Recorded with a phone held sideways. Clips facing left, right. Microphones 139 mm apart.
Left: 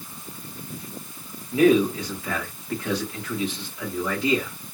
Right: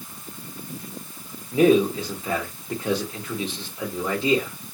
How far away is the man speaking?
About 1.7 m.